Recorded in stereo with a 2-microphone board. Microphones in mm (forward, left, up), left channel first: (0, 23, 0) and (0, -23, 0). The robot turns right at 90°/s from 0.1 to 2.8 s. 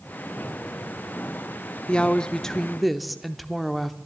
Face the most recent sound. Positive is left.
turn(degrees=0)  # may be behind; listen again after turning